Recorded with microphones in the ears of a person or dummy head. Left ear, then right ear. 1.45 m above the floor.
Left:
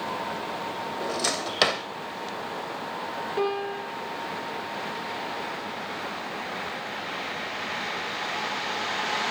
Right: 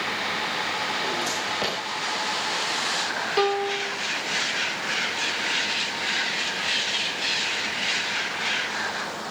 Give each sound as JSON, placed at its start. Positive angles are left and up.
{"t": 1.0, "sound": "a drawer", "side_deg": 65, "distance_m": 2.5}
{"t": 3.4, "sound": "a piano", "side_deg": -65, "distance_m": 3.0}